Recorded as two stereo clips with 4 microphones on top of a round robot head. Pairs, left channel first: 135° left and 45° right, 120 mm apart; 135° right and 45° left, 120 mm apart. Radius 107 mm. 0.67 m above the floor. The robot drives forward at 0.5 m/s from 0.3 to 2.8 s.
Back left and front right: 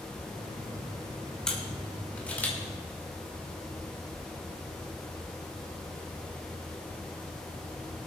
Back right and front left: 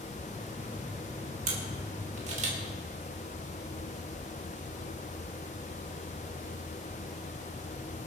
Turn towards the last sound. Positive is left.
turn(degrees=60)